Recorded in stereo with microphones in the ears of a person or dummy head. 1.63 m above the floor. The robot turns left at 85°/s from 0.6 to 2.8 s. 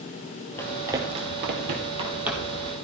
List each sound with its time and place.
0.6 s running footsteps: 15° left (ahead or behind), 2.5 m; by 2.6 s 20° left (ahead or behind), 3.5 m